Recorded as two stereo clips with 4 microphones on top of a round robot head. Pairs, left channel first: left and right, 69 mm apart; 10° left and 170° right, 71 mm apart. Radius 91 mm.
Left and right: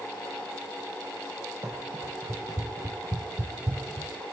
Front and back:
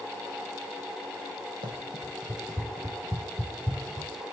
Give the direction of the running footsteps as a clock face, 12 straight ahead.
5 o'clock.